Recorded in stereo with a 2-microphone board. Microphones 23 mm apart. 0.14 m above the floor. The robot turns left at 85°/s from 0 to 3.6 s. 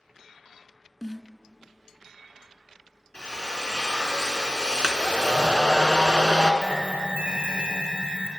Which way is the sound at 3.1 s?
95° left.